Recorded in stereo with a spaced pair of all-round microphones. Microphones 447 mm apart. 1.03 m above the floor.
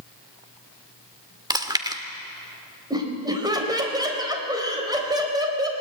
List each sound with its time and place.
1.5 s chewing: 10° right (ahead or behind), 1.5 m
2.9 s laughter: 10° right (ahead or behind), 4.5 m